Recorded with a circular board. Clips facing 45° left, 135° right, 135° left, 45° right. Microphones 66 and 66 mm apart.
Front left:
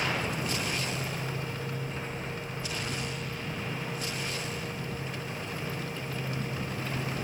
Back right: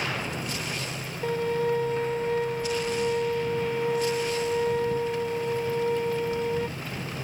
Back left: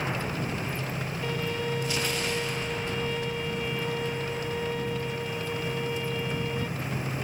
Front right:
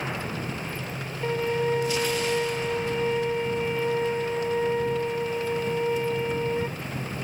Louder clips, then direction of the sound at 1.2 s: Back right 11 dB, front right 7 dB; 105° right.